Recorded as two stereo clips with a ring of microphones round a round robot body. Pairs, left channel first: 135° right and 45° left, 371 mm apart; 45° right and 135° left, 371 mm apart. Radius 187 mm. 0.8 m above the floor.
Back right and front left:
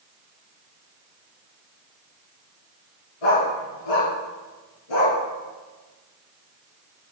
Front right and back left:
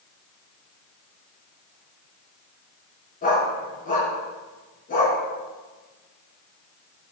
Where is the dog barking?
115° right, 4.5 m.